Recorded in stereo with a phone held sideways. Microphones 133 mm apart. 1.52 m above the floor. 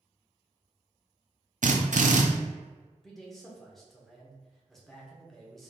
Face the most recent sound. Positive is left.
turn(degrees=0)  # may be behind; listen again after turning